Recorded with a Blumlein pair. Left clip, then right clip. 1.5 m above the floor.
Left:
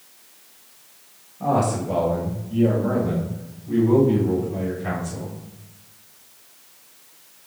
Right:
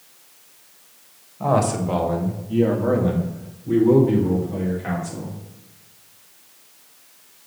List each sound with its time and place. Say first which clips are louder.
1.4 s a man speaking: right 1 dB; 20° right, 1.8 m; by 5.3 s 75° right, 4.5 m